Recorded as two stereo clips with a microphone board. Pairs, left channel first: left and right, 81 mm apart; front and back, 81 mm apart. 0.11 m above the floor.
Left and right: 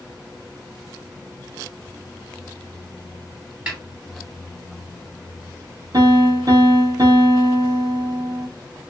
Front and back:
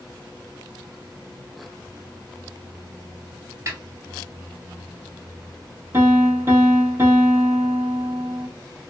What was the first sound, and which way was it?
A snare drum, 150° right.